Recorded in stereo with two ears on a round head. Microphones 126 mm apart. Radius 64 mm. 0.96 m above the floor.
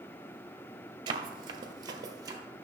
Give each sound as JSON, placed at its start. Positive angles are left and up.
{"t": 1.1, "sound": "running footsteps", "side_deg": -35, "distance_m": 1.1}